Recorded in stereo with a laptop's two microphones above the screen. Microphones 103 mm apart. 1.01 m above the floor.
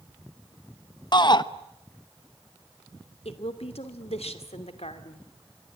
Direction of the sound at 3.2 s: 80° left.